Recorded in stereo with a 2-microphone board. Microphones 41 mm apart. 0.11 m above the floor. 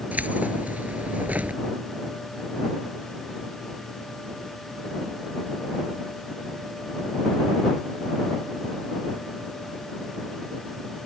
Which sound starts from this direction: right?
Keys jangling, at 0.1 s.